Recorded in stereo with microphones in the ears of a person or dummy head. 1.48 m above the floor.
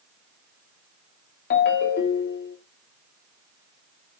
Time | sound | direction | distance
1.5 | a ringtone | 55° left (ahead or behind) | 0.8 m